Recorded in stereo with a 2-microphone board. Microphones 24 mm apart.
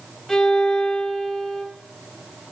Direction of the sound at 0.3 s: 15° left (ahead or behind).